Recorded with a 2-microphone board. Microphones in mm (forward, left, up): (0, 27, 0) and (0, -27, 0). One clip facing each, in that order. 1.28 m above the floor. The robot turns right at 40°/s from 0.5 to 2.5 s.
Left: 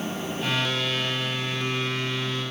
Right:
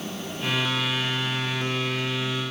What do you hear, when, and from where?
Only background noise.